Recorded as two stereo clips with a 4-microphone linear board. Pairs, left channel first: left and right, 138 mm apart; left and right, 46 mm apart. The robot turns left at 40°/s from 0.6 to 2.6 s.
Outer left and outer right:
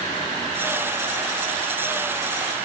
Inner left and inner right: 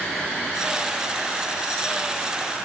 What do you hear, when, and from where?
Only background noise.